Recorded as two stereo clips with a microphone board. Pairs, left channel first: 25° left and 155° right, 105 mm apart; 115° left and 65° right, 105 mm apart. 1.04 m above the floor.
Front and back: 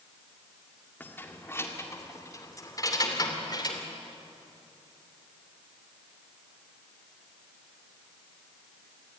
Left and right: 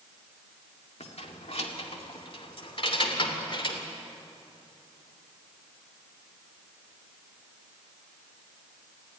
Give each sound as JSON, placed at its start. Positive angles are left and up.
{"t": 1.0, "sound": "keys jangling", "azimuth_deg": 95, "distance_m": 2.0}